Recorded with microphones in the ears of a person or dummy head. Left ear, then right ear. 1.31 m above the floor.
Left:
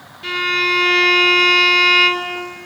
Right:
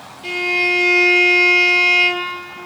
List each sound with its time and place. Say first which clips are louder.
0.2 s a violin: even; 35° left (ahead or behind), 2.5 m